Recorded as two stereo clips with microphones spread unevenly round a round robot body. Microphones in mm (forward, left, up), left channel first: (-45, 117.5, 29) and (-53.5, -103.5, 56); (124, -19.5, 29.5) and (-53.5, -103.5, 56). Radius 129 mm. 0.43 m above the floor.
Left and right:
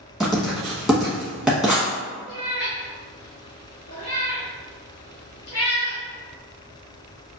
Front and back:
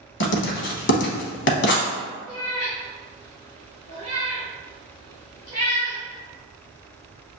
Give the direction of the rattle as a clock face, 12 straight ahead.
I don't hear a rattle.